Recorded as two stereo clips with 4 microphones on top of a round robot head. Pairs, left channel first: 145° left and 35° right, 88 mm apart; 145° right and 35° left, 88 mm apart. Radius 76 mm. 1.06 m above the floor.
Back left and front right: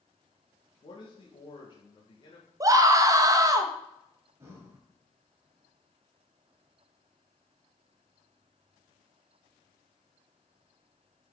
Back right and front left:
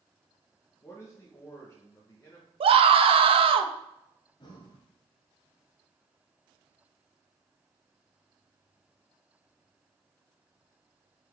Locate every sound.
0.8 s a man speaking: 160° left, 1.5 m
2.6 s a scream: 15° left, 1.0 m
4.4 s breathing: 100° right, 1.4 m